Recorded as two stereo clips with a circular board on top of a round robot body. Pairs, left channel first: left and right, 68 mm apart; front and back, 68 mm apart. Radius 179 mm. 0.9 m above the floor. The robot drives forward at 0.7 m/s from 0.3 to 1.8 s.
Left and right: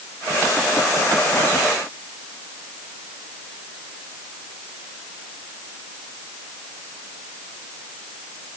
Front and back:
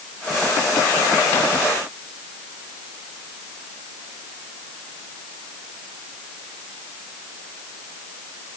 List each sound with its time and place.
Only background noise.